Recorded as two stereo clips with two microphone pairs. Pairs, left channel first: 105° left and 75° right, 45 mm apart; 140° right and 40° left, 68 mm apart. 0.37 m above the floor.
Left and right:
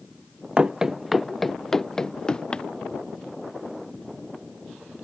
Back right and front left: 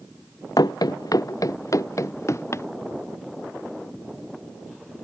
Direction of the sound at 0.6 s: 145° right.